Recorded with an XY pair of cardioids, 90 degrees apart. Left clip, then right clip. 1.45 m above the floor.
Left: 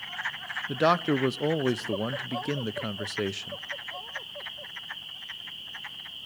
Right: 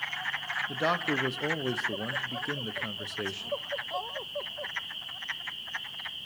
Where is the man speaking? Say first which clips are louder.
Left 6 dB; 55° left, 0.5 m.